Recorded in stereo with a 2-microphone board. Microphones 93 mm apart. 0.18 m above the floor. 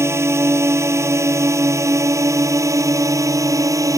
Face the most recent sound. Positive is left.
turn(degrees=-35)  # may be behind; listen again after turning